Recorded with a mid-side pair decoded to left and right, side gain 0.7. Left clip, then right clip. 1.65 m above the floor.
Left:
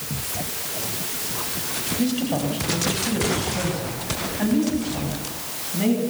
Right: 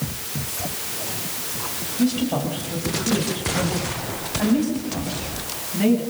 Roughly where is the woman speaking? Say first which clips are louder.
Right 3 dB; ahead.